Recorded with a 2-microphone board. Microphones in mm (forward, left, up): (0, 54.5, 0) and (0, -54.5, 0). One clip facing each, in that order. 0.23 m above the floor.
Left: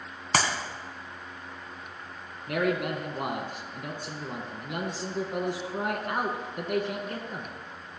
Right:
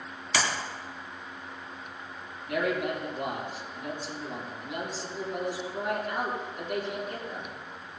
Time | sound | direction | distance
0.3 | a clap | 50° left (ahead or behind) | 2 m
2.5 | a man speaking | 60° left (ahead or behind) | 3 m